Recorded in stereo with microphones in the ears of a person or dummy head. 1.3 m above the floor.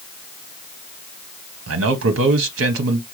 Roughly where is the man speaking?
Right.